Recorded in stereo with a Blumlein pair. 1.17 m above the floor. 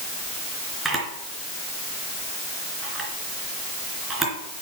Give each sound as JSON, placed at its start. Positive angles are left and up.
{"t": 0.8, "sound": "a camera shutter", "azimuth_deg": -10, "distance_m": 3.0}